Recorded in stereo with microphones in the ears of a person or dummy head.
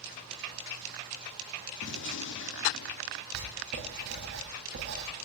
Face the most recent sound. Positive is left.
turn(degrees=-60)  # may be behind; listen again after turning